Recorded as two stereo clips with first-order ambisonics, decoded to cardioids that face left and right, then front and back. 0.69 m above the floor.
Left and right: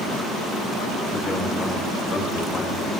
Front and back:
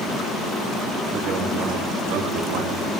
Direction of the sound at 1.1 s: 150° left.